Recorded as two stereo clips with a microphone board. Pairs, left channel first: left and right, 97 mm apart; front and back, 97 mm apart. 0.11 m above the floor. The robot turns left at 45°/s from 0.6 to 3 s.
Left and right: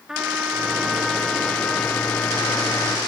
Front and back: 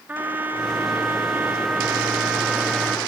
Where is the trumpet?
160° right, 0.9 m; by 3.0 s 90° left, 0.9 m.